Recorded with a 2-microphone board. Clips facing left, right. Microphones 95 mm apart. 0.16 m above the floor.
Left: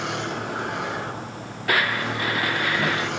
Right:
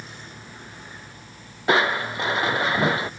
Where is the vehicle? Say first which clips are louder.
Left 14 dB; 75° left (ahead or behind); by 3.2 s 80° left.